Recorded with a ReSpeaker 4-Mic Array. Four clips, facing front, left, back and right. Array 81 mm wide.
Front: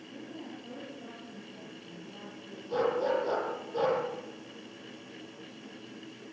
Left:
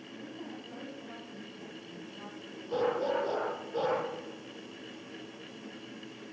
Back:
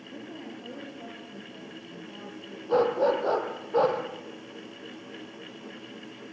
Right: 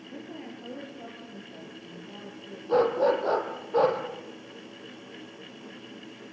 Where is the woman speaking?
120° right, 9.5 m.